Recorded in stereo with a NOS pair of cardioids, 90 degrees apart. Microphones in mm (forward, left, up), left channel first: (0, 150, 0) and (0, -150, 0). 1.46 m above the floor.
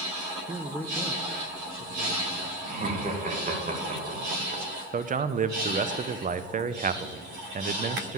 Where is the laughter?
25° right, 2.0 m.